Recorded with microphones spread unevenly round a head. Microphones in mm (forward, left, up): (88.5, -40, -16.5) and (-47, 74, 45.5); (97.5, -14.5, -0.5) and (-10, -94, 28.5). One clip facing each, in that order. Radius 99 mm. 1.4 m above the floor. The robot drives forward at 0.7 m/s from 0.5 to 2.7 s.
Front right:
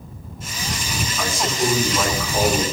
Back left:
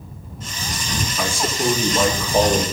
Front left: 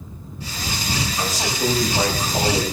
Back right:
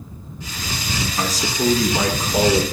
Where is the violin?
I don't hear a violin.